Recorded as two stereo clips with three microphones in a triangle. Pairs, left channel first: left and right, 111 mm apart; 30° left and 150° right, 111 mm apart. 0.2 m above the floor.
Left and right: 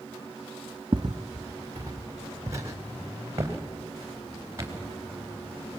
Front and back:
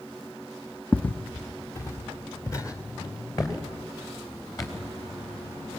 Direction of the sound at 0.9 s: 50° right.